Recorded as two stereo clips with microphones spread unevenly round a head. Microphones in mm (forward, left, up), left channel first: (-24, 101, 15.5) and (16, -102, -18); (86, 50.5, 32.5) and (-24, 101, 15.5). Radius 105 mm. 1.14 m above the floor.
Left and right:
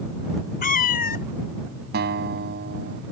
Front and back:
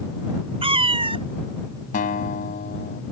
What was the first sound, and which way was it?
A cat meowing, 120° left.